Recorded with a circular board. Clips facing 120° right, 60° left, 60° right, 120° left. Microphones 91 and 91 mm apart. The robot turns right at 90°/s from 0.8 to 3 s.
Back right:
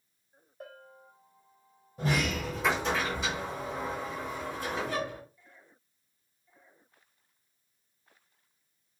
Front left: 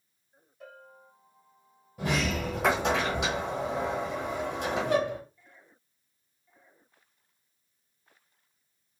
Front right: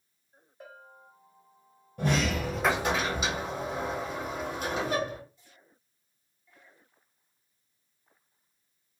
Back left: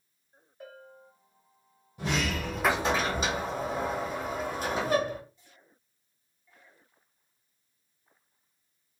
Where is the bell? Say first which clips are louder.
Back right 1 dB, back left 2 dB; 125° right, 1.9 m; by 1.1 s 100° right, 1.9 m.